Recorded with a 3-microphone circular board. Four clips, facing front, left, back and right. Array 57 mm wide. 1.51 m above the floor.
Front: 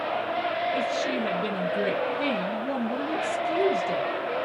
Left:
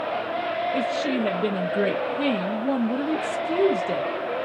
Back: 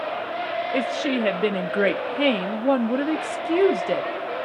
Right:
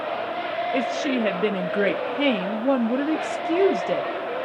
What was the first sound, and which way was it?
A woman speaking, 150° right.